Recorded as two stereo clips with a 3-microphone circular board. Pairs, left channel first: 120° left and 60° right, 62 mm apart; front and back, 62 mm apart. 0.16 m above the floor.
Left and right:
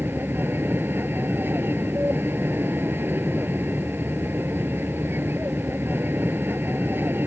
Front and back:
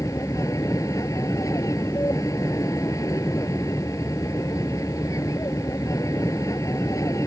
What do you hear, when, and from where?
0.0 s an aircraft: 10° right